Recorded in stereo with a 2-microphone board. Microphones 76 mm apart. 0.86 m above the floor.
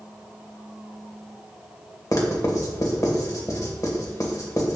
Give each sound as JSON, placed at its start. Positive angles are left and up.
{"t": 2.1, "sound": "writing", "side_deg": 50, "distance_m": 1.6}